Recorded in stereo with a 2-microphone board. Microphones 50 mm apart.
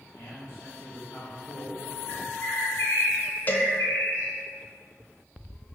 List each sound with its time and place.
0.1 s a man speaking: 60° left (ahead or behind), 1.6 m
2.1 s a bird: 60° left (ahead or behind), 1.6 m
3.5 s a cowbell: 30° left (ahead or behind), 0.6 m